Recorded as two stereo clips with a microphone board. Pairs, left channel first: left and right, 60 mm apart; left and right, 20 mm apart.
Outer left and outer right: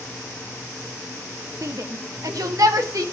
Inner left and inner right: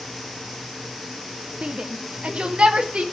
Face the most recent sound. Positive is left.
turn(degrees=-80)